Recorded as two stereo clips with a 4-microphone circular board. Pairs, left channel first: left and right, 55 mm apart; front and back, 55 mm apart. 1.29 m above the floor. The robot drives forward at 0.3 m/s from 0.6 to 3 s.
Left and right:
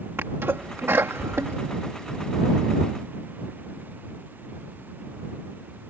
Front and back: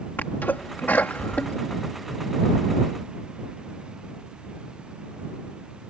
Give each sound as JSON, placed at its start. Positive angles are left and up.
{"t": 0.2, "sound": "a sneeze", "azimuth_deg": -50}